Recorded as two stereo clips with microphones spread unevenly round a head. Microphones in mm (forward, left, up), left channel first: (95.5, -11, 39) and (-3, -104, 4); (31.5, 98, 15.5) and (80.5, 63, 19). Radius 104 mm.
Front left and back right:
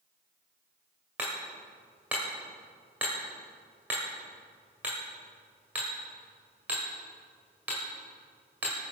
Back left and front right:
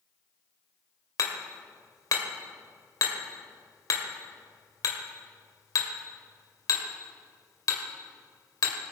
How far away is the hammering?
About 1.8 m.